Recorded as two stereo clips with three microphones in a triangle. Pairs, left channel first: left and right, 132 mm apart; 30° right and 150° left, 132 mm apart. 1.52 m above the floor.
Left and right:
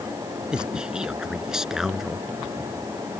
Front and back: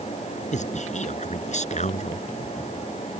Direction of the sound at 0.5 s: 5° right.